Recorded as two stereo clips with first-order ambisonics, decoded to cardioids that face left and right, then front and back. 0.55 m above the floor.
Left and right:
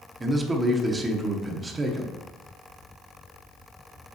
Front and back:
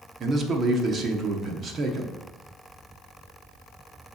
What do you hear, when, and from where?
0.2 s a man speaking: 155° right, 0.7 m